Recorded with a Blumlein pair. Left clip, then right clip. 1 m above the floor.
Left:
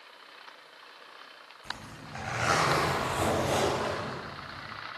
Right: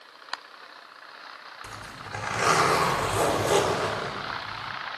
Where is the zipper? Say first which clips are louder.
Even; 40° right, 2.5 m.